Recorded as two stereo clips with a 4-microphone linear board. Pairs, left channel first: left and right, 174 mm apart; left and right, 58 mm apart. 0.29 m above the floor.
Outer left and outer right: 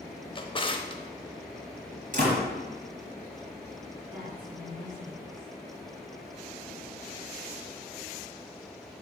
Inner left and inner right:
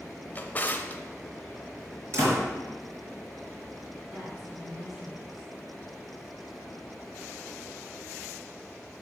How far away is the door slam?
About 4 m.